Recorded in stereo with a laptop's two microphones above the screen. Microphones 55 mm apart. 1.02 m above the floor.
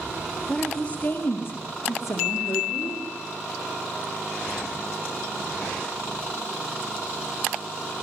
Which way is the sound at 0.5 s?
10° left (ahead or behind).